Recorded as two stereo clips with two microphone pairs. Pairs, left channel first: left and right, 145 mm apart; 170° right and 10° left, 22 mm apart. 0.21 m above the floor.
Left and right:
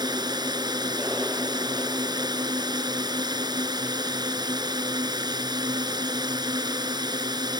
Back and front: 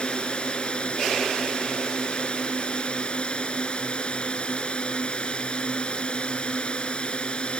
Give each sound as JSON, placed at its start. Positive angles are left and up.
{"t": 0.0, "sound": "a drone", "azimuth_deg": -145}